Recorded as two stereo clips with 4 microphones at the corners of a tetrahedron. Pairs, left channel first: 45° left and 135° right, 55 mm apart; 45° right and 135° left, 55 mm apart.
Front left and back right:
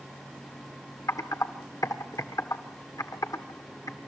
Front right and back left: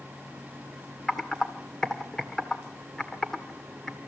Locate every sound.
1.1 s typing on a keyboard: 35° left, 1.5 m